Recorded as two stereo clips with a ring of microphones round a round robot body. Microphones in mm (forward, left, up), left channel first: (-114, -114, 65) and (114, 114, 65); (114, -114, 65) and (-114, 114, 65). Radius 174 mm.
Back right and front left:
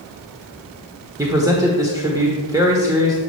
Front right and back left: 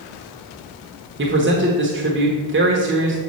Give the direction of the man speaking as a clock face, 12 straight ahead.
8 o'clock.